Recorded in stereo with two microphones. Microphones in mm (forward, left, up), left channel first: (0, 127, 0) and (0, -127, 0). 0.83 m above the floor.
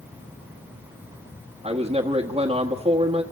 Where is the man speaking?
25° right (ahead or behind), 1.4 m.